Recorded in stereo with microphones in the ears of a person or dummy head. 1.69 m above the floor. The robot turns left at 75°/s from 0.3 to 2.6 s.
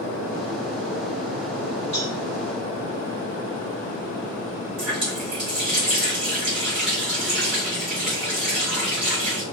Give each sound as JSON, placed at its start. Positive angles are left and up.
{"t": 1.9, "sound": "a cowbell", "side_deg": 30, "distance_m": 1.0}
{"t": 4.8, "sound": "a running tap", "side_deg": -10, "distance_m": 1.0}